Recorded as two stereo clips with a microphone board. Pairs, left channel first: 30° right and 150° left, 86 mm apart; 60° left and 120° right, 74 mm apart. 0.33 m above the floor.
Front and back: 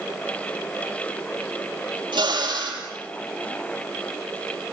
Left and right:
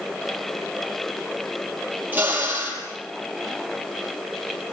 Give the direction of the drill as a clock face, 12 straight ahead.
6 o'clock.